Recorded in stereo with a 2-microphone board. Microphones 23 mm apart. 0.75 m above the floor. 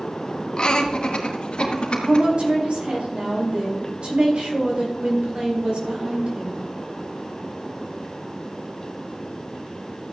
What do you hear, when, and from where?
0.6 s laughter: 35° left (ahead or behind), 1.2 m; by 2.2 s 50° left (ahead or behind), 2.5 m
2.0 s a woman speaking: 55° right (ahead or behind), 4 m